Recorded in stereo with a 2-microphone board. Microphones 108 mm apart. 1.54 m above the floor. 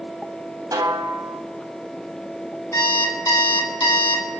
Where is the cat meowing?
I don't hear a cat meowing.